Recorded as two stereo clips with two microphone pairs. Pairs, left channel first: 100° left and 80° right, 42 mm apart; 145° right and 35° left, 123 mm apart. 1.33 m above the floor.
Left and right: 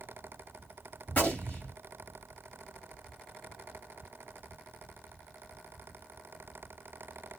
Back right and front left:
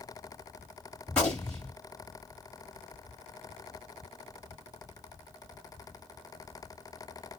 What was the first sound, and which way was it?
A gunshot, 140° left.